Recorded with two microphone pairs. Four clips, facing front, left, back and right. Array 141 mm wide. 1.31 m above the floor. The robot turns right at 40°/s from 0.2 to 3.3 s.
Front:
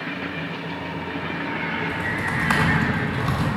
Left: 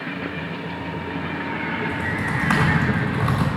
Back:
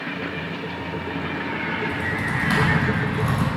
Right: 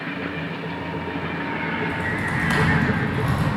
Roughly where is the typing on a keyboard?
Ahead.